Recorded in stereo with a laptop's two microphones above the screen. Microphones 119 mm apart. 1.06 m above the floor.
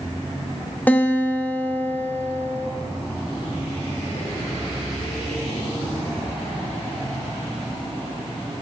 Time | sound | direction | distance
0.9 | a guitar | 15° left (ahead or behind) | 0.6 m